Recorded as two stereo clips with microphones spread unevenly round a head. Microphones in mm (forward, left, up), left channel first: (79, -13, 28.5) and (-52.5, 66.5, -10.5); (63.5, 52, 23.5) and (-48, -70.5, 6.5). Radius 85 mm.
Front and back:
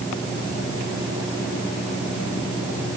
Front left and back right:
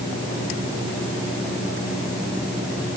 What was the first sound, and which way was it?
Only background noise.